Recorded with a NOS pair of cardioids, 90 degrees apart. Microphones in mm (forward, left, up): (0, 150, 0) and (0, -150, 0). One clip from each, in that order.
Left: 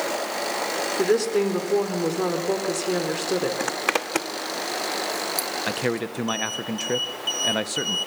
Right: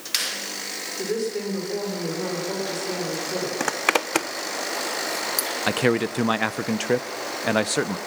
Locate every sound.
1.0 s a woman speaking: 55° left, 4.5 m
3.6 s a zipper: 15° right, 0.8 m
5.7 s a man speaking: 30° right, 1.0 m